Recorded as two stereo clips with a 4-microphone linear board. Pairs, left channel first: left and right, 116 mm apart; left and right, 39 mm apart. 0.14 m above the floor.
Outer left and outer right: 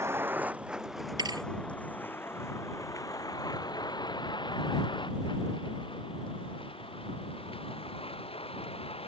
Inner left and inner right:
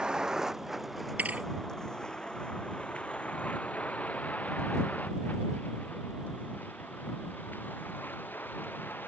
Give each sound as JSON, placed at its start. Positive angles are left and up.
{"t": 0.0, "sound": "a vehicle", "side_deg": -25}
{"t": 1.2, "sound": "a thud", "side_deg": -40}